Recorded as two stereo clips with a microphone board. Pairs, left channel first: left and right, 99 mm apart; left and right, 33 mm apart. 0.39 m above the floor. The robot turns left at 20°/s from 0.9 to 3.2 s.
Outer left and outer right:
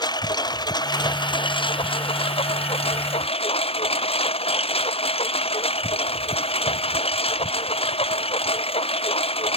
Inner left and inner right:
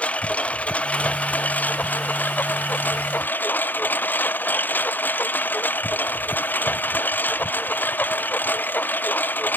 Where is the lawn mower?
135° left; by 9.6 s 90° left.